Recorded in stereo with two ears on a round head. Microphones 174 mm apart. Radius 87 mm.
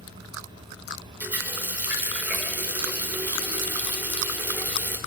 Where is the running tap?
10° right (ahead or behind), 1.8 m.